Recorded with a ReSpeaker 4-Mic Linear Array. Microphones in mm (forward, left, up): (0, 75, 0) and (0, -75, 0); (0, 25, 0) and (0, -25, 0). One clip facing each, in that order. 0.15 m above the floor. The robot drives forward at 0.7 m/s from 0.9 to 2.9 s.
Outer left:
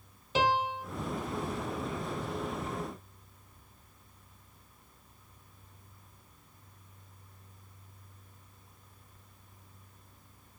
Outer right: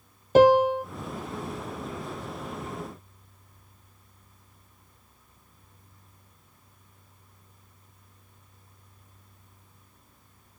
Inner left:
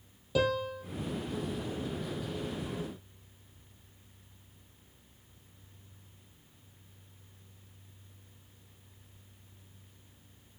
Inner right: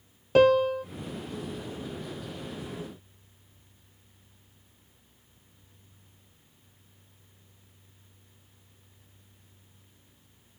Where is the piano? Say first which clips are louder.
Outer right 13 dB, inner right 10 dB; 50° right (ahead or behind), 1.2 m.